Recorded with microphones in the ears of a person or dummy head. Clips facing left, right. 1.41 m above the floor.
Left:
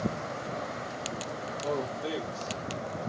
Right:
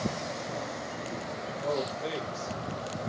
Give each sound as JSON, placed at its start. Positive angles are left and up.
{"t": 1.6, "sound": "a man speaking", "side_deg": -55, "distance_m": 1.8}